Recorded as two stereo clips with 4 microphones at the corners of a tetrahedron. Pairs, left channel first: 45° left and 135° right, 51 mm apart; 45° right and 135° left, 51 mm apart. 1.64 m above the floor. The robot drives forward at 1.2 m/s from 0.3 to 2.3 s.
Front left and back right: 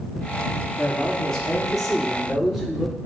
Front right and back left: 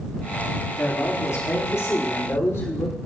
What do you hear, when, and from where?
0.8 s a man speaking: 35° right, 5 m; by 3.0 s 50° right, 3.5 m